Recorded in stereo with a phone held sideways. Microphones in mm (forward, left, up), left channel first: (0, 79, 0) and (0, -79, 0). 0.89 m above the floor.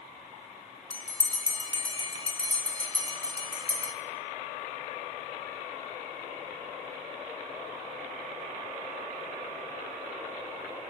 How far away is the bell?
About 1.3 m.